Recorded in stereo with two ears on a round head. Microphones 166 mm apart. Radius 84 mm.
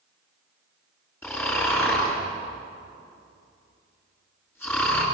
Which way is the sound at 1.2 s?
10° left (ahead or behind).